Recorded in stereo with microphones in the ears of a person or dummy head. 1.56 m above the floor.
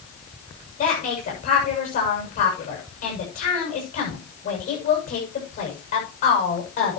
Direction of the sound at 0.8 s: 40° left (ahead or behind).